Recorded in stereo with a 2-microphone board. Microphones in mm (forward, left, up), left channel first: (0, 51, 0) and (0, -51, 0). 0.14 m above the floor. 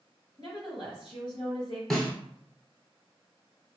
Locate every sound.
0.4 s a woman speaking: 50° left (ahead or behind), 1.9 m
1.9 s a snare drum: centre (ahead or behind), 0.8 m